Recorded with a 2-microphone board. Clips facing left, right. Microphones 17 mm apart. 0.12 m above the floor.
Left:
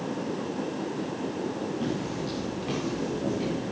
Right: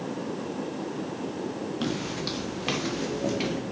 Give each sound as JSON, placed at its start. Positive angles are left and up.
{"t": 1.8, "sound": "footsteps", "side_deg": -75, "distance_m": 2.5}